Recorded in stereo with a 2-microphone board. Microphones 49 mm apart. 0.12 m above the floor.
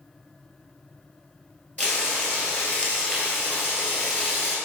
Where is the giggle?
I don't hear a giggle.